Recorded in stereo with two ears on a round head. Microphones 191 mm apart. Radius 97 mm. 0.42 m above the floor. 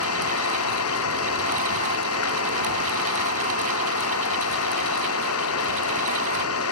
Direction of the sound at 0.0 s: 75° left (ahead or behind).